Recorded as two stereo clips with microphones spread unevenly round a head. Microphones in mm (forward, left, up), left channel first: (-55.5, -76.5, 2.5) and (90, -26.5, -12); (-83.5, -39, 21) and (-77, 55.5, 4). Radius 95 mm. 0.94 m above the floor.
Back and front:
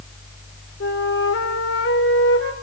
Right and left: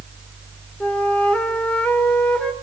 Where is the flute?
175° right, 3 m.